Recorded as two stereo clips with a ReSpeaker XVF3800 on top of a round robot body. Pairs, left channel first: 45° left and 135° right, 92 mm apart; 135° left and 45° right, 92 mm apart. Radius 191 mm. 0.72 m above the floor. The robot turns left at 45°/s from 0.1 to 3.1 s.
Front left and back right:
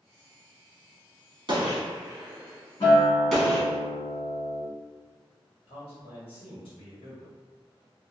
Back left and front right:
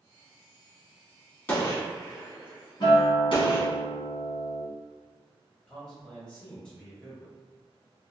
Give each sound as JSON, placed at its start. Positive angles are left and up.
{"t": 1.5, "sound": "a gunshot", "azimuth_deg": -160, "distance_m": 1.4}
{"t": 2.8, "sound": "a guitar", "azimuth_deg": 90, "distance_m": 1.3}
{"t": 5.7, "sound": "a man speaking", "azimuth_deg": 55, "distance_m": 1.8}